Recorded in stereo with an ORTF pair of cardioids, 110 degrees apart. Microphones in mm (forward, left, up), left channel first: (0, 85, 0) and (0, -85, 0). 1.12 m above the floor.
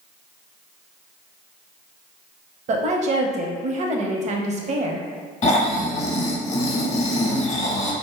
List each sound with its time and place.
2.7 s a woman speaking: 45° right, 0.7 m
5.4 s snoring: 40° left, 0.8 m